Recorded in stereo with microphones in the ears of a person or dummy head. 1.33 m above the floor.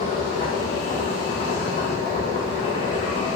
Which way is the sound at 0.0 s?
30° left (ahead or behind).